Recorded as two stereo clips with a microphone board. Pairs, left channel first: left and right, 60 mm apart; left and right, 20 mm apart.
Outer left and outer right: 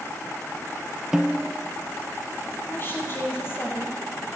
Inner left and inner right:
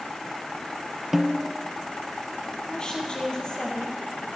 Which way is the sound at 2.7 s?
40° left (ahead or behind).